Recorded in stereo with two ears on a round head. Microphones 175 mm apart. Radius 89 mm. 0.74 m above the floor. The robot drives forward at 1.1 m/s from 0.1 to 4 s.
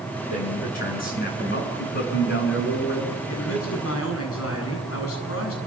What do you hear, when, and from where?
0.3 s a man speaking: 40° left (ahead or behind), 9 m; by 3.2 s 60° left (ahead or behind), 6.5 m
3.3 s a man speaking: 75° left (ahead or behind), 7.5 m; by 5.6 s 80° left, 7.5 m